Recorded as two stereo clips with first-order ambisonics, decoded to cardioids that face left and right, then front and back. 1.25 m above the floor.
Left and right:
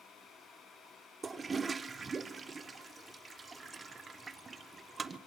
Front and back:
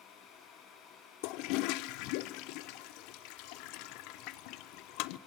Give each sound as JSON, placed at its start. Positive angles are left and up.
{"t": 1.2, "sound": "a toilet flushing", "azimuth_deg": -15, "distance_m": 0.5}